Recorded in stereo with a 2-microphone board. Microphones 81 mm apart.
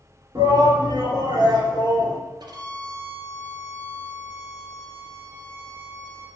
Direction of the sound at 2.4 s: 60° right (ahead or behind).